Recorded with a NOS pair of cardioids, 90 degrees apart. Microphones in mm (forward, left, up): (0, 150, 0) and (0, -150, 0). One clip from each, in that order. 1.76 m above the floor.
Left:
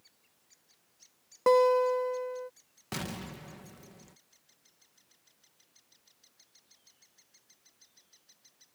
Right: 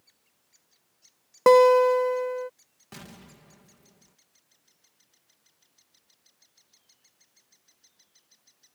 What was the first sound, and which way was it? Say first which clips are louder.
A guitar: right 7 dB; 40° right.